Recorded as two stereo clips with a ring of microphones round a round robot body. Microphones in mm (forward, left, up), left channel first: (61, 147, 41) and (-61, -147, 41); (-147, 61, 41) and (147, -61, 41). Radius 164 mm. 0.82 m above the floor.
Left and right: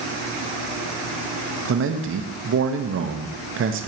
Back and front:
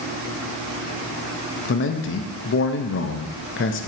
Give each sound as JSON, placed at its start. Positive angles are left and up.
{"t": 1.6, "sound": "a man speaking", "azimuth_deg": -155, "distance_m": 0.7}